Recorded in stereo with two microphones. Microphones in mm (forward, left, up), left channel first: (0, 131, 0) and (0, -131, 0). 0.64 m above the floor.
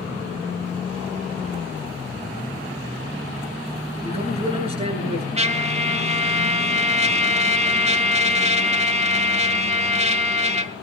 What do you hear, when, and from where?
4.0 s a man speaking: 25° right (ahead or behind), 10 m
5.4 s a trumpet: 25° right (ahead or behind), 1.1 m